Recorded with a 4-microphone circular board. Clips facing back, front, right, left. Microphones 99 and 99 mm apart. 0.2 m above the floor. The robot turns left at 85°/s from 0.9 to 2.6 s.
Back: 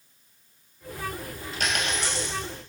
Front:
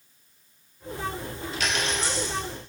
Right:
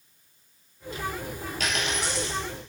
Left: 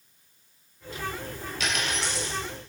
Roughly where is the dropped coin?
Behind right.